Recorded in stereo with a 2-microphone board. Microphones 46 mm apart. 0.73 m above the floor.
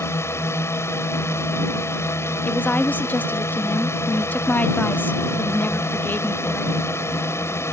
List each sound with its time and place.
0.0 s a drone: 75° left (ahead or behind)
2.4 s a woman speaking: 40° left (ahead or behind)